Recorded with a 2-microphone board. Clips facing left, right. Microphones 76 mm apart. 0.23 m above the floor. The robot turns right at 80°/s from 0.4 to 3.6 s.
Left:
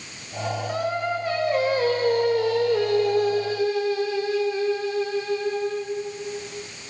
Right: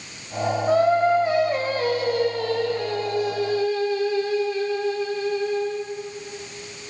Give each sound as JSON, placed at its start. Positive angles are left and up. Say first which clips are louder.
{"t": 0.7, "sound": "singing", "louder": "right 10 dB", "azimuth_deg": -70, "distance_m": 4.5}